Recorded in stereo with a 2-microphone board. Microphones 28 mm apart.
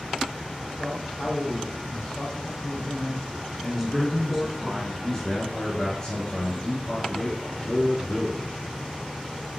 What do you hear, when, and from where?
0.8 s a man speaking: 40° left (ahead or behind), 2.5 m
3.7 s a man speaking: centre (ahead or behind), 1.9 m
5.0 s a man speaking: 25° left (ahead or behind), 2.5 m